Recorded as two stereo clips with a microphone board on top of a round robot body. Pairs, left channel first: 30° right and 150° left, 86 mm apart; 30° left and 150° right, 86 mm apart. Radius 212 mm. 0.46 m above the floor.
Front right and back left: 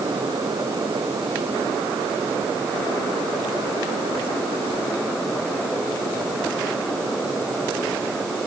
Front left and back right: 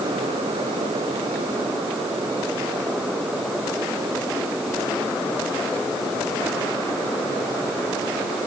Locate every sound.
Only background noise.